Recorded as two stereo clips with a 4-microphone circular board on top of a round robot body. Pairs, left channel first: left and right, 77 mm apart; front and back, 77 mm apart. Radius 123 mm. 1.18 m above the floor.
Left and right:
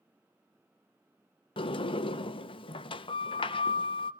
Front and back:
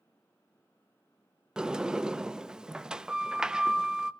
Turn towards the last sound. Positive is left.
turn(degrees=100)